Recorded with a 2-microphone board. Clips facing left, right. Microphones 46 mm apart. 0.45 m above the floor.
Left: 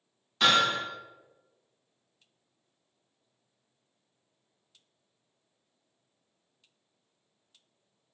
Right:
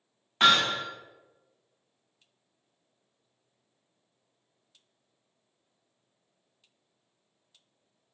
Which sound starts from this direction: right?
Hammering, at 0.4 s.